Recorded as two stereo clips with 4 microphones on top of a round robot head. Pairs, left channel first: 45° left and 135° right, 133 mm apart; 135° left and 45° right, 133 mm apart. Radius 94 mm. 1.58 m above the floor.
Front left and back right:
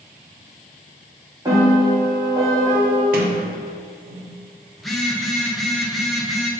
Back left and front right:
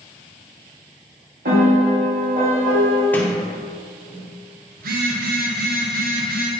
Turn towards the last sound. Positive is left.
turn(degrees=-40)